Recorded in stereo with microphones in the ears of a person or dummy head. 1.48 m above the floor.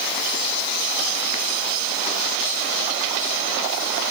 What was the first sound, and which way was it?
Only background noise.